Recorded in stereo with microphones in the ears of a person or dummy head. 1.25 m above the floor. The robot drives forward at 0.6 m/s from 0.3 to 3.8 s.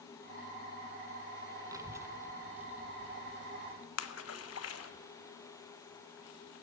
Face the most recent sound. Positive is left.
turn(degrees=85)